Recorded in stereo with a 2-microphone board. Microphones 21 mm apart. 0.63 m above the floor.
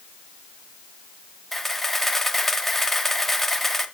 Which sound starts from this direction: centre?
A camera shutter, at 1.5 s.